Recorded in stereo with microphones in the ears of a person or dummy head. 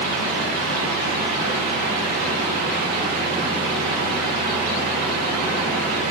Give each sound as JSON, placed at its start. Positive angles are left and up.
{"t": 0.0, "sound": "a fan", "side_deg": -50, "distance_m": 2.5}